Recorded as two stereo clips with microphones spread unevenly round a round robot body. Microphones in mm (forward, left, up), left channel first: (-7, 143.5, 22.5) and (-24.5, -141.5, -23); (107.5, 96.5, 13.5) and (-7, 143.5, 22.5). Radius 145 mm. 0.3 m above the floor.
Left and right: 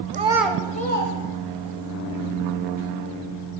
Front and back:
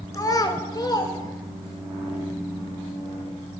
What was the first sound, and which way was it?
A child speaking, 65° right.